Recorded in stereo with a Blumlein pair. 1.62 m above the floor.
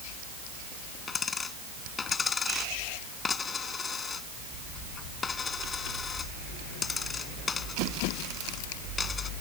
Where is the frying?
No frying in this recording.